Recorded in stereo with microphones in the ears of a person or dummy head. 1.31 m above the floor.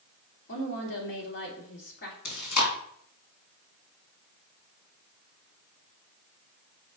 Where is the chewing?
75° left (ahead or behind), 2 m.